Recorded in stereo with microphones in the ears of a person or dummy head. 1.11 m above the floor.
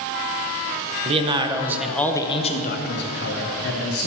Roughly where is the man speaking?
Right.